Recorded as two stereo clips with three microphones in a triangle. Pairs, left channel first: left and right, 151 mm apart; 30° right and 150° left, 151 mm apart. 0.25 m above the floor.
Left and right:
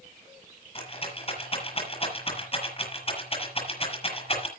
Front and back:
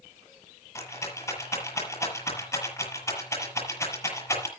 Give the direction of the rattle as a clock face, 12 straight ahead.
11 o'clock.